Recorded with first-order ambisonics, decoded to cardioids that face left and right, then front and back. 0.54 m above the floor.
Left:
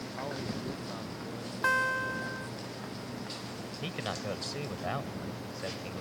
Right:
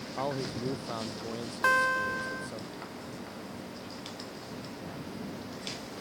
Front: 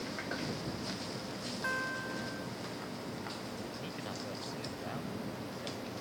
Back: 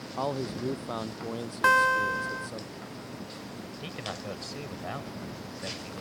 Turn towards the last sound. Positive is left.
turn(degrees=120)